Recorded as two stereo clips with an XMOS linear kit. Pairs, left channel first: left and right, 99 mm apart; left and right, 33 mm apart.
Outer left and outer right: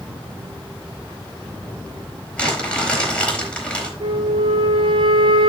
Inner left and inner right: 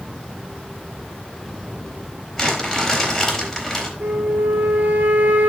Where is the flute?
50° right (ahead or behind), 2.5 m.